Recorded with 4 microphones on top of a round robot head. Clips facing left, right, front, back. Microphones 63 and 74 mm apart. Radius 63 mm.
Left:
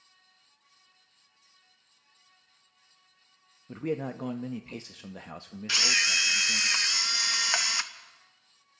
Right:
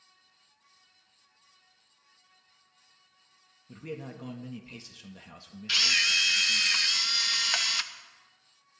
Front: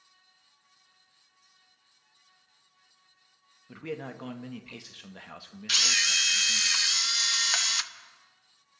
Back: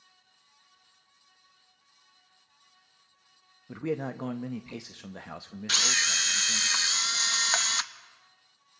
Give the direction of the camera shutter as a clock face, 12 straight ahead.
7 o'clock.